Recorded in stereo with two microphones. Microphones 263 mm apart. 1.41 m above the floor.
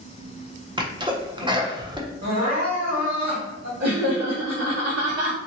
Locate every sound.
0.8 s a sneeze: 15° right (ahead or behind), 0.7 m
2.2 s crying: 75° right (ahead or behind), 1.8 m
3.8 s laughter: 70° right (ahead or behind), 1.7 m